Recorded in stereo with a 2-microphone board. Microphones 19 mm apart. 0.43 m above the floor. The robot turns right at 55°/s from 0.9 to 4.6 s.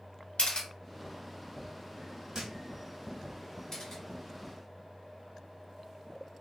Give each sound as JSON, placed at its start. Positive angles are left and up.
{"t": 0.4, "sound": "a camera shutter", "side_deg": 65, "distance_m": 0.9}
{"t": 2.3, "sound": "a thud", "side_deg": -45, "distance_m": 0.8}
{"t": 3.7, "sound": "a camera shutter", "side_deg": 35, "distance_m": 1.7}